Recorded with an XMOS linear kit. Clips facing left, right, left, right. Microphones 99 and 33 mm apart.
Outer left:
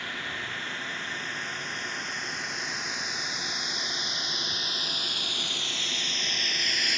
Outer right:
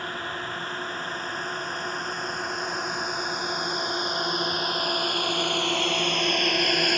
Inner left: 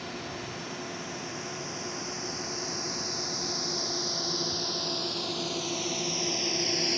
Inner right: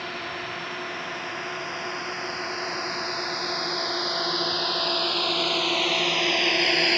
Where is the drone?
40° right (ahead or behind); by 7.0 s 60° right (ahead or behind).